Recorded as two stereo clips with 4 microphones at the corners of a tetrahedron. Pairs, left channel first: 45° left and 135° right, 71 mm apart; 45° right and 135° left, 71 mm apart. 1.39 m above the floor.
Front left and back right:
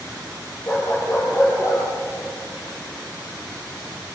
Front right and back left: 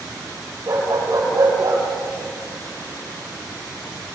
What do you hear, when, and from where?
0.7 s a dog barking: 95° left, 9 m; by 1.8 s 90° left, 9.5 m